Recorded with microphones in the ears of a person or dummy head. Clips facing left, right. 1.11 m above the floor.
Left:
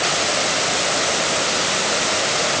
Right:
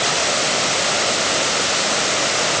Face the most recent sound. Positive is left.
No sound to turn to.